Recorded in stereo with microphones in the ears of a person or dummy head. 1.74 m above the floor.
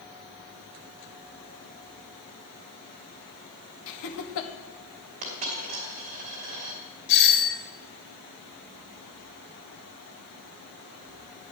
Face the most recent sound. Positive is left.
turn(degrees=60)  # may be behind; listen again after turning